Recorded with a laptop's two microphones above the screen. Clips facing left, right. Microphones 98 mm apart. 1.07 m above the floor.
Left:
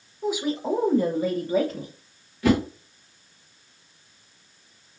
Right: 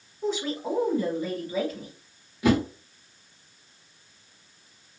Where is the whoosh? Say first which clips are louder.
Left 1 dB; 15° right (ahead or behind), 1.3 m.